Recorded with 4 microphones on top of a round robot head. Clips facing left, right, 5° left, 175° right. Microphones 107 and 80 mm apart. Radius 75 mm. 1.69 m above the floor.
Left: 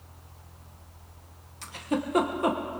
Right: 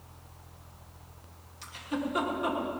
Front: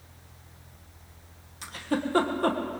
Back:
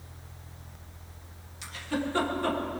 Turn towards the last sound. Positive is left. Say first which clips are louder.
# left 4 dB, front 3 dB
turn(degrees=50)